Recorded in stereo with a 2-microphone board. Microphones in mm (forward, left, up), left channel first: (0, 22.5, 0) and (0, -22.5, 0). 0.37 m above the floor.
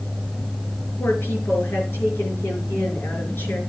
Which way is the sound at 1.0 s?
60° left (ahead or behind).